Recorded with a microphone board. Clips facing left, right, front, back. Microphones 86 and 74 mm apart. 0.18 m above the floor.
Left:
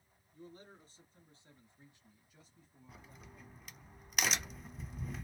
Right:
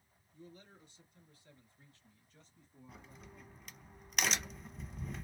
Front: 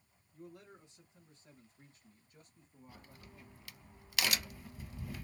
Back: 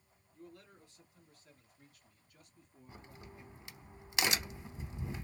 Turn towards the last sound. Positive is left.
turn(degrees=180)